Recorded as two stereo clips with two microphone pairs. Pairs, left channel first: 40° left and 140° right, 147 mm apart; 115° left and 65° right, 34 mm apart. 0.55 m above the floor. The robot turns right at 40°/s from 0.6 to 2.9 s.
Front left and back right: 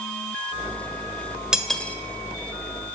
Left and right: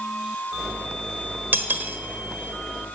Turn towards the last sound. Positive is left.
turn(degrees=0)